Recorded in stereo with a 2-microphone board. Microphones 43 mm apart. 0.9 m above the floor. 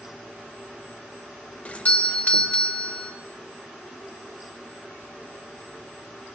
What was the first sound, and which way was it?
A doorbell, 30° left (ahead or behind).